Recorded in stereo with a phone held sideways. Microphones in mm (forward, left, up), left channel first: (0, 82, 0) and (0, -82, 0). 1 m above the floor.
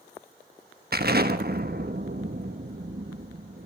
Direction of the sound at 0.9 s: 65° right (ahead or behind).